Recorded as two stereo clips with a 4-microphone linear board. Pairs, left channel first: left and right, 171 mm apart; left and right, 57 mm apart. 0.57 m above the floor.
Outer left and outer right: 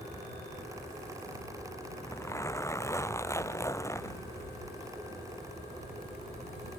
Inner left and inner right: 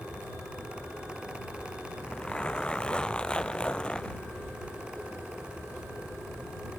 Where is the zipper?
15° left (ahead or behind).